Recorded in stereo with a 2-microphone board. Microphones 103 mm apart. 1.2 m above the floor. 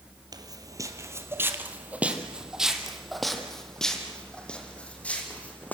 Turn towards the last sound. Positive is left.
turn(degrees=15)  # may be behind; listen again after turning